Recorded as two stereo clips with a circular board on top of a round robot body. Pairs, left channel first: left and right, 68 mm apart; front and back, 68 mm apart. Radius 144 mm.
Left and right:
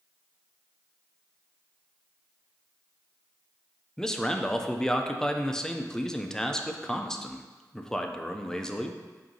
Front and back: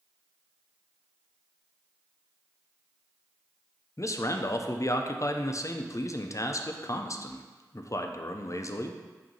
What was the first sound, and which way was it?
A man speaking, 15° left.